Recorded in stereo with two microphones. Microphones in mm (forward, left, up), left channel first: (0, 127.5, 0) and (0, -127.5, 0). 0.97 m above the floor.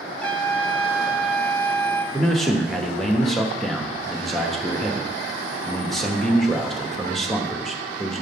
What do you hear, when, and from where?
0.2 s a trumpet: 5° left (ahead or behind), 0.8 m
2.1 s a man speaking: centre (ahead or behind), 1.0 m